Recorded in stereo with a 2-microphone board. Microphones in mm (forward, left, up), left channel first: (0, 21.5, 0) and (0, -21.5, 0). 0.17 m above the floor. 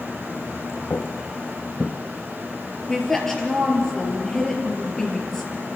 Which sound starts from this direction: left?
Footsteps, at 0.9 s.